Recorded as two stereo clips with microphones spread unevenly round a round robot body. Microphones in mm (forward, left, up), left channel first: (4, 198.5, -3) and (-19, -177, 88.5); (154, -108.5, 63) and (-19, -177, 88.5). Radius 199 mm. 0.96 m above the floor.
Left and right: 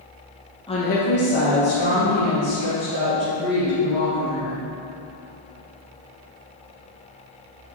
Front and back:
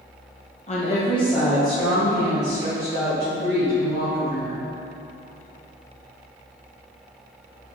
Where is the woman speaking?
30° left, 0.9 m; by 4.6 s 110° left, 5.5 m.